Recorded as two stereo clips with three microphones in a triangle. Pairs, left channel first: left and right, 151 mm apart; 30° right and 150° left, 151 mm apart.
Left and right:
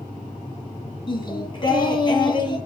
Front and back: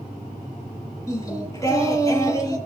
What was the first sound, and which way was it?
Singing, 35° left.